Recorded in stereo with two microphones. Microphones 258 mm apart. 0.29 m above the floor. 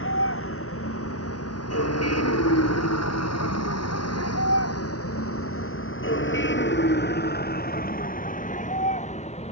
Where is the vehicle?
55° left (ahead or behind); by 9.5 s 25° left (ahead or behind).